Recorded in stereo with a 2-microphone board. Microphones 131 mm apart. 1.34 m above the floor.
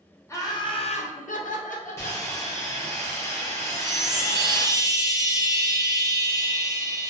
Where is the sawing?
20° left (ahead or behind), 0.8 m.